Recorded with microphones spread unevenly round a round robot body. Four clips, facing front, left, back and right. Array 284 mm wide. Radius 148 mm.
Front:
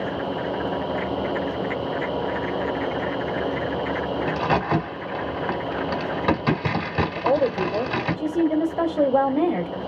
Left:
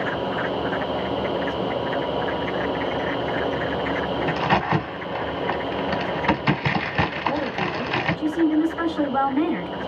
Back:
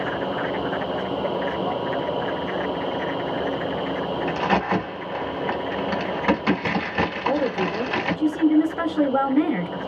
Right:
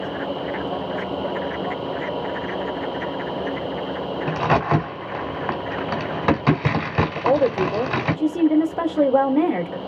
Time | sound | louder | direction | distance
4.3 | a crack | right 3 dB, back 1 dB | 80° right | 1.5 m
7.2 | a woman speaking | right 6 dB, front 4 dB | 95° right | 1.5 m